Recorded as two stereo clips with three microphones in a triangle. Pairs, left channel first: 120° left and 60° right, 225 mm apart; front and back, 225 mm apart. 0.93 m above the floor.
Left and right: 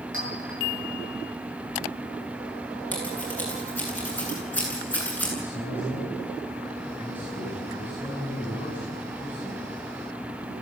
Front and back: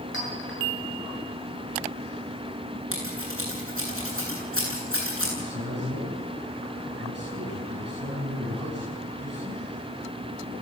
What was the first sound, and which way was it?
A clink, 30° right.